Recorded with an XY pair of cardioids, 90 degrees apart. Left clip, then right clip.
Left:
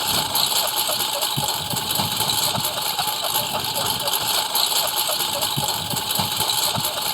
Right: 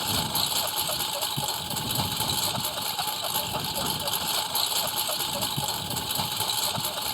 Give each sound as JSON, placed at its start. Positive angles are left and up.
{"t": 0.0, "sound": "a lawn mower", "azimuth_deg": 45}